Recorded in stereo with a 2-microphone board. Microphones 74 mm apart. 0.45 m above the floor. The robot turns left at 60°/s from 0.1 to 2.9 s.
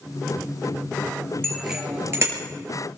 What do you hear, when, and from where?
1.4 s a bicycle bell: 10° left (ahead or behind), 5.5 m; by 2.4 s 45° right (ahead or behind), 5.5 m